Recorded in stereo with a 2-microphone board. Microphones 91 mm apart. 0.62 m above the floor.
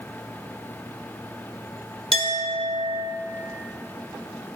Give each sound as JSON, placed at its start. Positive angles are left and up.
{"t": 2.1, "sound": "a clink", "side_deg": -80, "distance_m": 1.2}